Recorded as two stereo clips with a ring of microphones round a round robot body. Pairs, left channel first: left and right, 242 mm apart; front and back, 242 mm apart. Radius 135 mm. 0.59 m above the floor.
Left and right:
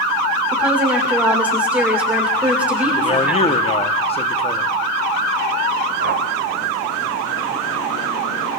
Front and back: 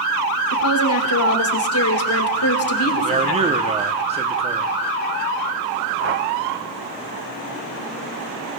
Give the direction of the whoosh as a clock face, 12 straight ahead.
5 o'clock.